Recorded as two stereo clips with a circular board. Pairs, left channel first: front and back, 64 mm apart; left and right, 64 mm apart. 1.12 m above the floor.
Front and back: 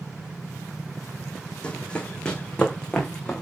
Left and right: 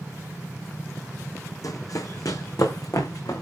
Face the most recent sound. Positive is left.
turn(degrees=75)